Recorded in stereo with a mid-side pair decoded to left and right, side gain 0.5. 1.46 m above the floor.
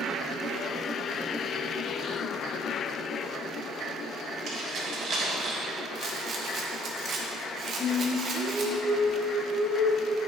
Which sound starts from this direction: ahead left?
Singing, at 7.8 s.